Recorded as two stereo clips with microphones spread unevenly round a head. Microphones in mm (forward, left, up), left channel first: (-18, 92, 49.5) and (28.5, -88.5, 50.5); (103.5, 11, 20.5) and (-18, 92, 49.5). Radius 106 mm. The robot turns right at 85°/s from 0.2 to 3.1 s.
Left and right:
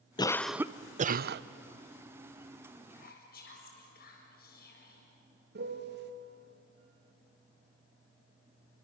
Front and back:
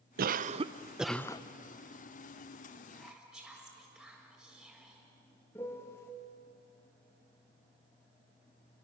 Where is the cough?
170° left, 0.7 m; by 1.4 s 85° right, 0.7 m.